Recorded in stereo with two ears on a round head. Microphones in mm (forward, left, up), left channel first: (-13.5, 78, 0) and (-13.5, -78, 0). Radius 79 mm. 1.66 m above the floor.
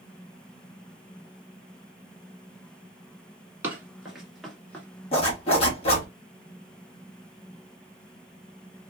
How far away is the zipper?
About 1.5 m.